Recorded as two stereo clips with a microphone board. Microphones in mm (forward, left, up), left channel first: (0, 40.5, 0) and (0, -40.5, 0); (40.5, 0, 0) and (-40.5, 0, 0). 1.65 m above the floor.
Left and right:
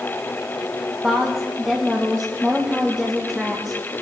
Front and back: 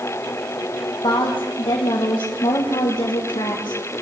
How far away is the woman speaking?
About 1.6 m.